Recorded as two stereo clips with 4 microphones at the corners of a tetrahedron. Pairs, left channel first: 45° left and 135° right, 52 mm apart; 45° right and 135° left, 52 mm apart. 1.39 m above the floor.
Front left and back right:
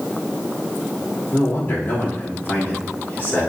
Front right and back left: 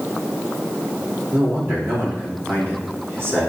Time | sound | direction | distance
1.3 | a man speaking | 90° left | 4 m